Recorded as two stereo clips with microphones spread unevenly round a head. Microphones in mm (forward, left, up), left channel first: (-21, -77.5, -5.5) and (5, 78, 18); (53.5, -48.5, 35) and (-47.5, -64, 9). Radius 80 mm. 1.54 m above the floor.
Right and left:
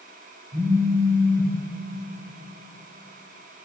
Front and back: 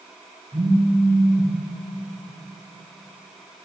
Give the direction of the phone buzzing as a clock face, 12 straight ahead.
9 o'clock.